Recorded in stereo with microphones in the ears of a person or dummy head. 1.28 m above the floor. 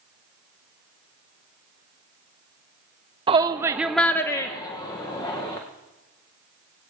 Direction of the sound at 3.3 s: 25° right (ahead or behind).